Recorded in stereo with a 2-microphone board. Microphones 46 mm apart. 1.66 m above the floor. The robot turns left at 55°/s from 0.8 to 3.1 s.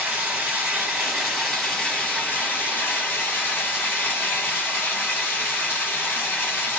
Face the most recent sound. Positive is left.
turn(degrees=90)